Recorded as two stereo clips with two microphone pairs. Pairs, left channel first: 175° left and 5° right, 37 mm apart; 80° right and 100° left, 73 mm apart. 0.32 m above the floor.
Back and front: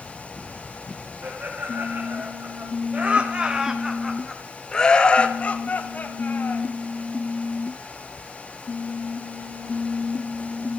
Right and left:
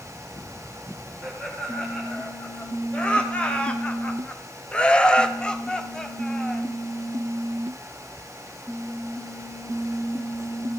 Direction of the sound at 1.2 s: 5° right.